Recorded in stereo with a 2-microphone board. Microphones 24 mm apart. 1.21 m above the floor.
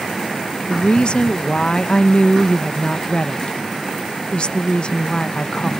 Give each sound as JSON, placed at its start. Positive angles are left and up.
{"t": 0.7, "sound": "a woman speaking", "side_deg": 45}